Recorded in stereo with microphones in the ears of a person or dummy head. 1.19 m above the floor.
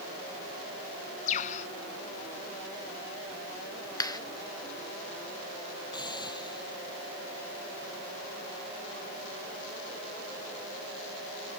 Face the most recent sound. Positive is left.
turn(degrees=25)  # may be behind; listen again after turning